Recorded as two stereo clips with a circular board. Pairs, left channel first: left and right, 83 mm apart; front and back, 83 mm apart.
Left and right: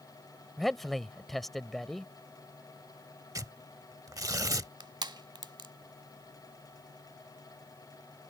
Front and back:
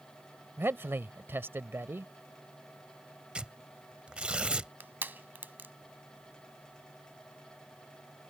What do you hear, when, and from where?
0.6 s a man speaking: 175° left
3.4 s tearing paper: 110° right
4.8 s crushing: 115° right